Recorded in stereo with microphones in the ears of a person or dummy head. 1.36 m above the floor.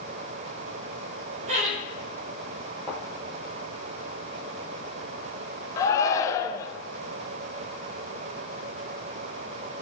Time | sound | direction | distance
1.5 | laughter | 45° right (ahead or behind) | 1.4 m
2.9 | a thud | centre (ahead or behind) | 3 m
5.8 | a shout | 15° left (ahead or behind) | 0.9 m